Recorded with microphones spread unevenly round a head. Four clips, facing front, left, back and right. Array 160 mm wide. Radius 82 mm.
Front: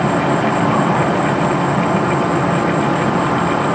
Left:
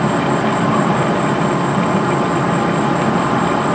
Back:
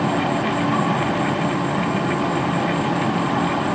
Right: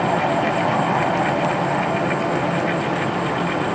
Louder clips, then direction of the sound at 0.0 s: Left 3 dB, front 5 dB; 45° left.